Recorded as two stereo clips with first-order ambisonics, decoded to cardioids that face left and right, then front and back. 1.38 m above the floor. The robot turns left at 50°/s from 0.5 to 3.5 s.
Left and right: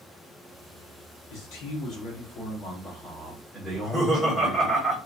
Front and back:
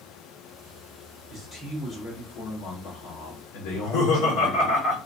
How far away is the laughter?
About 1.8 m.